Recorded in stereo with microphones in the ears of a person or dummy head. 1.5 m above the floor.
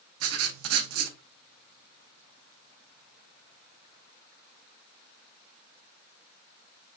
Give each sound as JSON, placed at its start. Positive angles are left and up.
{"t": 0.2, "sound": "writing", "side_deg": -80, "distance_m": 0.9}